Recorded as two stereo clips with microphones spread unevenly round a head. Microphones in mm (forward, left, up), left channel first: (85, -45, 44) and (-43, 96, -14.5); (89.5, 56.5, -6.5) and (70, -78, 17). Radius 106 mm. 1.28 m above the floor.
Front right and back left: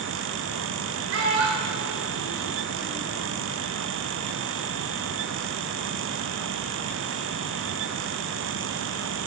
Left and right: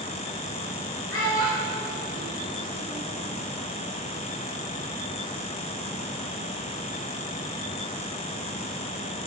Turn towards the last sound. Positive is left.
turn(degrees=135)